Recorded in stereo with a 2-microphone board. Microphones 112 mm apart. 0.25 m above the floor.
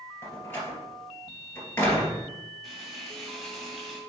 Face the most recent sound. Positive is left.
turn(degrees=0)  # may be behind; listen again after turning